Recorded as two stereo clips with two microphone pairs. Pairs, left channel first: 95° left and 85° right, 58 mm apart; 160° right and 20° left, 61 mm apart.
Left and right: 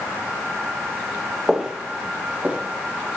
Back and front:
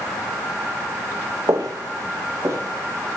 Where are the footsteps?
Straight ahead, 1.0 m; by 3.2 s 25° right, 1.7 m.